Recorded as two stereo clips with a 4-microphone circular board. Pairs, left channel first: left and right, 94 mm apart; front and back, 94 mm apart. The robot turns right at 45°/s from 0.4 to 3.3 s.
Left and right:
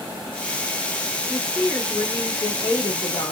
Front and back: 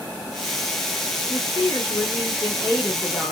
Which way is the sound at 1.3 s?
10° right.